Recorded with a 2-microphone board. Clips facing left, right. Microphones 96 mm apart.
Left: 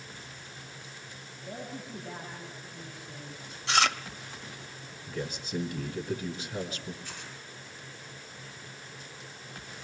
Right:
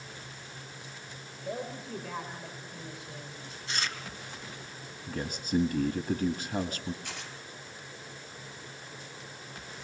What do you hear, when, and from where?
1.4 s a woman speaking: 80° right, 5.5 m
3.7 s chewing: 75° left (ahead or behind), 1.0 m
5.1 s a man speaking: 45° right (ahead or behind), 1.7 m
7.0 s tearing paper: 80° right, 4.5 m